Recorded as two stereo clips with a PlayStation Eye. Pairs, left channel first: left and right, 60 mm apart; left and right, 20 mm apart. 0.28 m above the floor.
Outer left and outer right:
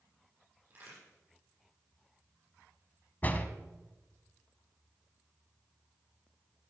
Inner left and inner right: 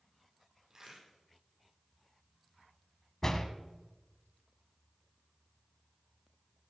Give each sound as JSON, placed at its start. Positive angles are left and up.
{"t": 0.7, "sound": "a crack", "side_deg": -35, "distance_m": 8.5}
{"t": 3.2, "sound": "a door slam", "side_deg": 30, "distance_m": 1.3}